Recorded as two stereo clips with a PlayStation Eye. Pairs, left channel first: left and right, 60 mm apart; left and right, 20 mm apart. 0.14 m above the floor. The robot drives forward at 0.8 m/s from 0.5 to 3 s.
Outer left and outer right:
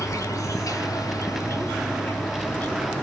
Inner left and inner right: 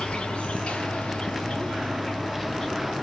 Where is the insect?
60° left (ahead or behind), 0.9 m; by 3.0 s 25° left (ahead or behind), 1.9 m.